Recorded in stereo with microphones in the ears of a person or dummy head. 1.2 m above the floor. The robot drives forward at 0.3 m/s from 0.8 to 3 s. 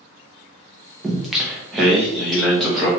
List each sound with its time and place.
1.0 s singing: centre (ahead or behind), 0.6 m